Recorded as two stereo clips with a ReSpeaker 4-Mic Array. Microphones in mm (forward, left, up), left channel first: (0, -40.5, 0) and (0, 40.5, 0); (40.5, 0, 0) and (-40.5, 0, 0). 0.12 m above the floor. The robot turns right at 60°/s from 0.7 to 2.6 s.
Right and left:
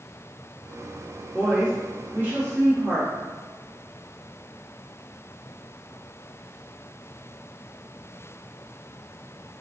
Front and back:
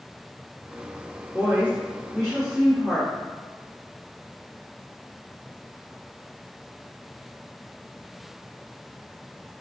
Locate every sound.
1.3 s a woman speaking: 20° left, 1.6 m; by 3.1 s 95° left, 1.6 m